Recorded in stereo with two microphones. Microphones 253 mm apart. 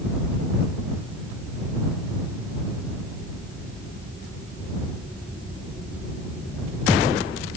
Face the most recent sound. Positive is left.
No sound to turn to.